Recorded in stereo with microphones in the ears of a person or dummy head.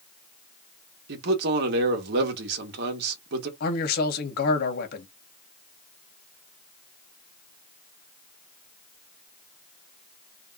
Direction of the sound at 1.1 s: 65° right (ahead or behind).